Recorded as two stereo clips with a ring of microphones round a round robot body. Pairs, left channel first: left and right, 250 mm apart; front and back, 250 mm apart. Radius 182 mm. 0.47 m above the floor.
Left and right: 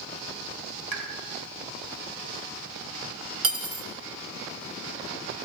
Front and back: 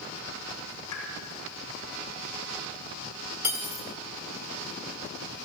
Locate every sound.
0.9 s a pop: 80° right, 1.7 m
3.4 s cutlery clinking: 95° right, 0.8 m